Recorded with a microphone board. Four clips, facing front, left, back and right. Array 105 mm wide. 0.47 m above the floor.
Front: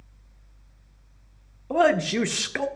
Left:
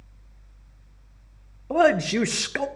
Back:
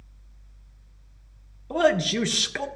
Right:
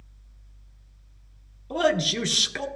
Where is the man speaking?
70° left, 0.7 m.